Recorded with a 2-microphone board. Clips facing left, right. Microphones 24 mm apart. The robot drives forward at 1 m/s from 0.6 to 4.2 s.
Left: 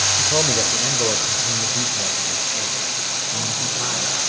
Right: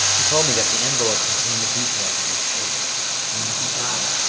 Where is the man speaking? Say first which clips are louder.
Even; 10° right (ahead or behind), 0.8 m; by 4.2 s centre (ahead or behind), 3.5 m.